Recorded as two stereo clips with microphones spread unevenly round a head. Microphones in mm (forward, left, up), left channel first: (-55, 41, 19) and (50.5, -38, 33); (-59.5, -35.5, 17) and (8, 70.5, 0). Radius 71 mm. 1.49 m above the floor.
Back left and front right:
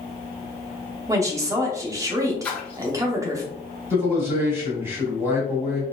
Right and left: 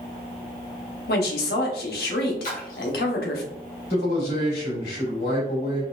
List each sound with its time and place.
1.1 s a woman speaking: 105° right, 0.8 m
2.4 s a splash: 135° right, 1.1 m
3.9 s a man speaking: 110° right, 2.0 m